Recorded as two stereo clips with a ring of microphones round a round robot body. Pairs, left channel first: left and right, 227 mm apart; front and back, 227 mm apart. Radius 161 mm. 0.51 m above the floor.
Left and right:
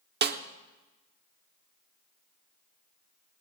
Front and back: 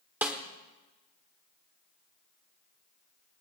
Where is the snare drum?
100° right, 1.0 m.